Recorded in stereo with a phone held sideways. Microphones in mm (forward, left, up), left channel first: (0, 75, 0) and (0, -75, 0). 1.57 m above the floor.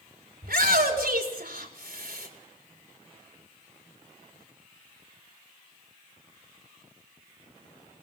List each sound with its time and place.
0.4 s a shout: 90° right, 5 m